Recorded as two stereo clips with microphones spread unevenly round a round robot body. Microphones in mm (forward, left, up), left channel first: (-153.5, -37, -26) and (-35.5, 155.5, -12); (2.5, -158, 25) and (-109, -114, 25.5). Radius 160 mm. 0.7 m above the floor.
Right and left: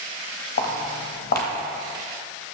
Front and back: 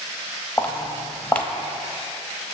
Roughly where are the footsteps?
Right.